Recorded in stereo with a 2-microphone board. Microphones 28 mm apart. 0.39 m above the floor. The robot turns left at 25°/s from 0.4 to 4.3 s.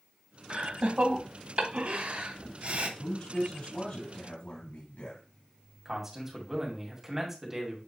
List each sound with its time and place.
0.5 s laughter: 35° right (ahead or behind), 1.2 m; by 2.9 s 40° right (ahead or behind), 1.2 m
3.0 s a man speaking: 135° left, 3 m; by 5.2 s 105° left, 3 m
5.8 s a man speaking: 15° right (ahead or behind), 2 m